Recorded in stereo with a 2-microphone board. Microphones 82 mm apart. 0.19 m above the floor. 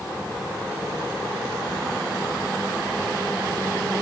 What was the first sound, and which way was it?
Only background noise.